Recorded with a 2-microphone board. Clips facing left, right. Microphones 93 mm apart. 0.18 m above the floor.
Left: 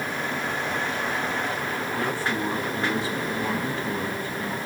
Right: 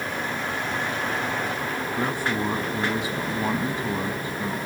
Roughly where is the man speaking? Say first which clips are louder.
Right 2 dB; centre.